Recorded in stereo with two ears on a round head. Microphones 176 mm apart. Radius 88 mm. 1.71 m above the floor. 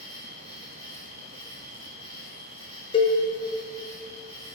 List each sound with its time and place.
0.0 s an insect: 35° right (ahead or behind), 2.5 m
2.9 s a cowbell: 25° left (ahead or behind), 0.8 m